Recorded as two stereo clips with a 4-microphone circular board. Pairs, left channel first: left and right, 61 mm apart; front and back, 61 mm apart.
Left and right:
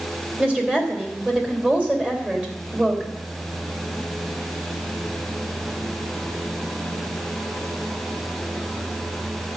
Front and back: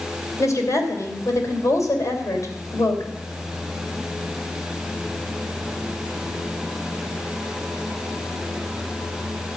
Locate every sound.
0.4 s a woman speaking: 25° right, 3 m